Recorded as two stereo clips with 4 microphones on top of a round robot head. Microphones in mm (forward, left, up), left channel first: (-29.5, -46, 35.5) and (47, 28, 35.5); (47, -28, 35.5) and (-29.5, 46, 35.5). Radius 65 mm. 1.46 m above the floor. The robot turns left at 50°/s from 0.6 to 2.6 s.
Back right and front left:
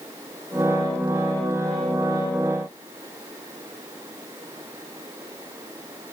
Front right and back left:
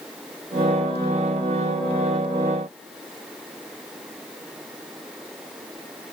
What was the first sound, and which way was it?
Only background noise.